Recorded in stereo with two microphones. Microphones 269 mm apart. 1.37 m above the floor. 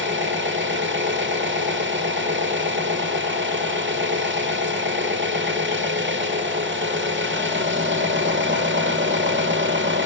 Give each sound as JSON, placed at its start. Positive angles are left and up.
{"t": 0.0, "sound": "an engine running", "side_deg": -45, "distance_m": 1.0}